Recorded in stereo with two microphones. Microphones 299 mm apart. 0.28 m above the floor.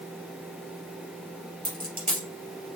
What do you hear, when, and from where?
1.6 s a dropped coin: 70° right (ahead or behind), 2.5 m